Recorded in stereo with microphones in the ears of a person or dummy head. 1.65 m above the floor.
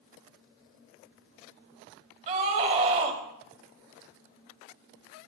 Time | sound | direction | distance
2.3 | a scream | 45° right (ahead or behind) | 4 m